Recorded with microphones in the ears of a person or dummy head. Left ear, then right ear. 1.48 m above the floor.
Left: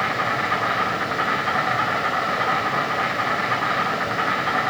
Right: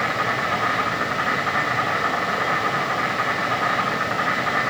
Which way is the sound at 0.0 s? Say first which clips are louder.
Even; 5° left (ahead or behind).